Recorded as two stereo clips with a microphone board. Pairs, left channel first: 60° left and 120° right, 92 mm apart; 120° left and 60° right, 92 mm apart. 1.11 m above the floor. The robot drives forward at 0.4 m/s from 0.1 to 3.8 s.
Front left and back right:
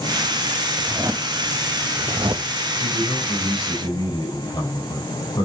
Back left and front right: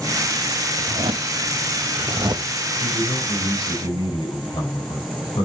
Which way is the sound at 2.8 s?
100° left.